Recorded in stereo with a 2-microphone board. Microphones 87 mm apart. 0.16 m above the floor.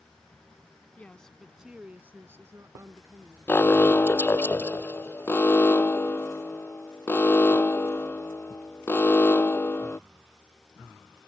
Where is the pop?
I don't hear a pop.